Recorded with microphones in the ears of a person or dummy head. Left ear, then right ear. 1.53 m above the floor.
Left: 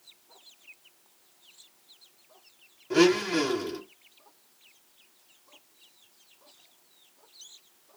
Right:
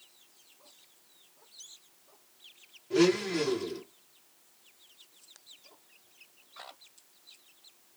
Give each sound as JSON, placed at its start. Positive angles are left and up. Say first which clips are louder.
{"t": 2.9, "sound": "a blender", "louder": "left 4 dB", "side_deg": 50, "distance_m": 0.8}